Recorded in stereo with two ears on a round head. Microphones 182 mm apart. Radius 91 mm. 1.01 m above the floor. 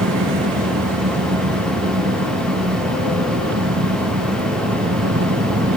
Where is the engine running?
60° right (ahead or behind).